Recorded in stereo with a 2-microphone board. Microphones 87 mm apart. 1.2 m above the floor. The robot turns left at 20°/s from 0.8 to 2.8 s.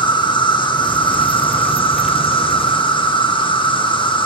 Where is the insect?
115° left, 0.8 m; by 4.2 s 75° left, 0.8 m.